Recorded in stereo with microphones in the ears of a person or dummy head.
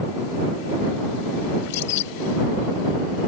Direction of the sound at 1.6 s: 60° left (ahead or behind).